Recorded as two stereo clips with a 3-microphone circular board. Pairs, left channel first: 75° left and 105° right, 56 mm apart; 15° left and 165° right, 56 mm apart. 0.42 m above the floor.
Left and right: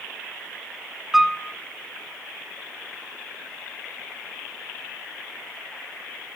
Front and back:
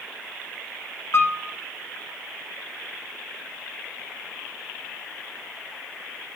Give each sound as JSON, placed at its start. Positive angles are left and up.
{"t": 1.1, "sound": "a piano", "azimuth_deg": -25, "distance_m": 0.7}